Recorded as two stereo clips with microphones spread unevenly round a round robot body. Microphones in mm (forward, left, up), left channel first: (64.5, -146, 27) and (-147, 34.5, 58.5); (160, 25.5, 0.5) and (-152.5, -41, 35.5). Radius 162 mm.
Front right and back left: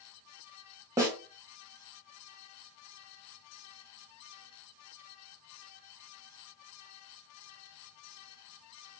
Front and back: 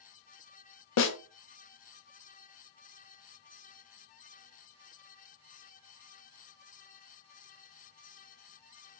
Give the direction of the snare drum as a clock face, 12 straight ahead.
10 o'clock.